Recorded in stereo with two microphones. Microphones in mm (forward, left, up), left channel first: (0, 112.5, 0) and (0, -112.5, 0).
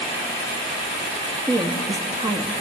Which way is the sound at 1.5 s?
20° right (ahead or behind).